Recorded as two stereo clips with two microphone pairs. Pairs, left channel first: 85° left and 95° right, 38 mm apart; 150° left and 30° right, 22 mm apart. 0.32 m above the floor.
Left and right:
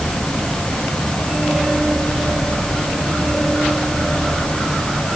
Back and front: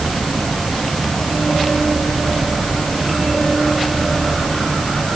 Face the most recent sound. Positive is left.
No sound to turn to.